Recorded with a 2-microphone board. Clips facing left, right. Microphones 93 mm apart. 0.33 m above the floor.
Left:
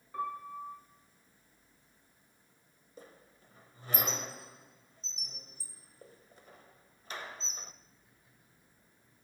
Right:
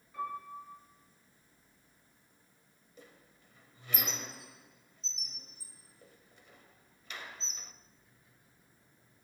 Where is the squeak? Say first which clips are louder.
Left 4 dB; 35° left (ahead or behind), 0.9 m.